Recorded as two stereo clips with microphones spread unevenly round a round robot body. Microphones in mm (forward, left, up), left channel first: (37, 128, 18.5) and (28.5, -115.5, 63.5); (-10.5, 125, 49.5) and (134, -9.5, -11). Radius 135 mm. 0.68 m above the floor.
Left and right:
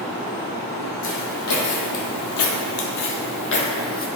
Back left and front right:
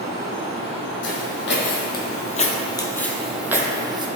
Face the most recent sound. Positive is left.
turn(degrees=30)